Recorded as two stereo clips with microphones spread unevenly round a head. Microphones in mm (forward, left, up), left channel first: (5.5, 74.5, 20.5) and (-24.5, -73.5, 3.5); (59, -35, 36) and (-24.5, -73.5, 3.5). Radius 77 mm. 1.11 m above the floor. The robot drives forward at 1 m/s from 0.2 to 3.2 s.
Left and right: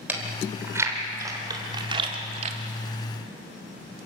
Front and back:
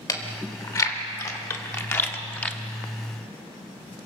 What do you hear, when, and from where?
0.1 s chewing: 20° right, 3.5 m; by 2.6 s 55° right, 1.7 m